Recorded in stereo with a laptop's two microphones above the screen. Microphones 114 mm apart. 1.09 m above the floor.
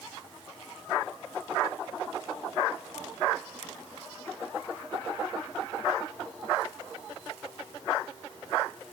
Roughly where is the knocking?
No knocking in this recording.